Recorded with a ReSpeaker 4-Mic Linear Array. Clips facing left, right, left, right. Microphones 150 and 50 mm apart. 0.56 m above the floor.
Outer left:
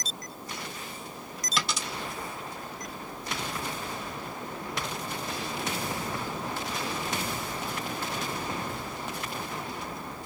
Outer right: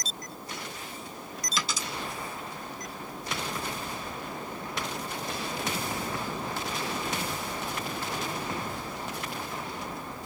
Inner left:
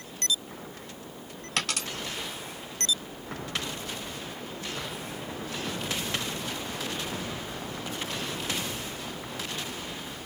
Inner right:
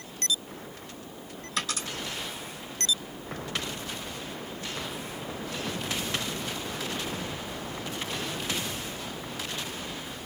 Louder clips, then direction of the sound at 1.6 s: Outer left 2 dB, inner left 1 dB; 70° left (ahead or behind).